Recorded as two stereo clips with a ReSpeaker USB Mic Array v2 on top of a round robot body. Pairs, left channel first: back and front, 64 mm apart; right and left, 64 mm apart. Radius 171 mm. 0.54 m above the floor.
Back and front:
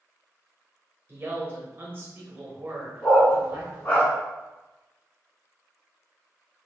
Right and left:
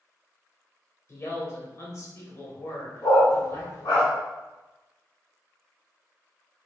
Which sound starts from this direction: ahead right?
A man speaking, at 1.1 s.